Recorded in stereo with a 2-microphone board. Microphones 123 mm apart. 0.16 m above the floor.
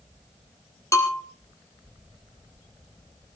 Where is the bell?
25° left (ahead or behind), 3.5 m.